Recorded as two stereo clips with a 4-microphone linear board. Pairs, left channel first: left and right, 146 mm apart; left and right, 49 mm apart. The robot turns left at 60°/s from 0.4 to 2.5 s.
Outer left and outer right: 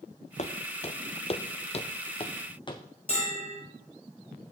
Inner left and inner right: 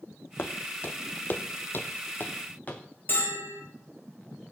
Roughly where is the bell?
Left.